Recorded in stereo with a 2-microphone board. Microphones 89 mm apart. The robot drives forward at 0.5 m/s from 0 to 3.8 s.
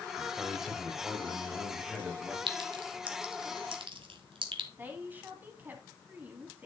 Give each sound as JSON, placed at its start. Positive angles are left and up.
{"t": 0.2, "sound": "a man speaking", "side_deg": -5, "distance_m": 2.0}
{"t": 2.5, "sound": "a clink", "side_deg": -70, "distance_m": 1.7}
{"t": 4.8, "sound": "a woman speaking", "side_deg": -20, "distance_m": 2.5}